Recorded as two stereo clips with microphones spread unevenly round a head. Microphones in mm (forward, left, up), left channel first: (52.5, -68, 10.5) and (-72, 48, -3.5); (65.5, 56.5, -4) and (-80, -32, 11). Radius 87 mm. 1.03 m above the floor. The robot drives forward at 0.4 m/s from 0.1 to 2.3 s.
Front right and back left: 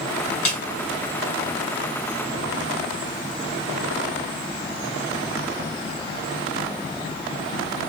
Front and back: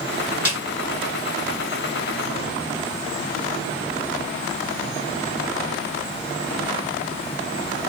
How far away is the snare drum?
About 1.9 m.